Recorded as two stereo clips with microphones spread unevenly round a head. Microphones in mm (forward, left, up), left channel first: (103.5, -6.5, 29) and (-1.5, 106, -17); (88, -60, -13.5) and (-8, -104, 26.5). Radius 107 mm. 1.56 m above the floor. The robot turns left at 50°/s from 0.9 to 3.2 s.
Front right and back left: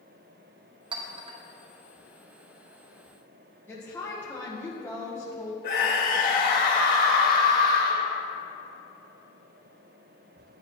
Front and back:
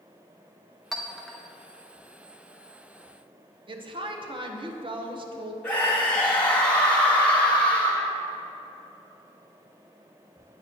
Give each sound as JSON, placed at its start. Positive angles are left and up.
{"t": 0.9, "sound": "a clink", "azimuth_deg": -170, "distance_m": 0.7}
{"t": 3.7, "sound": "a woman speaking", "azimuth_deg": -125, "distance_m": 1.1}
{"t": 5.6, "sound": "a scream", "azimuth_deg": -55, "distance_m": 2.5}